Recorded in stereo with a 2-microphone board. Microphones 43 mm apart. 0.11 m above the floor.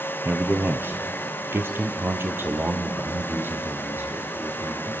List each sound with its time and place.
0.2 s a man speaking: 40° right (ahead or behind), 1.8 m; by 4.9 s 50° right (ahead or behind), 5 m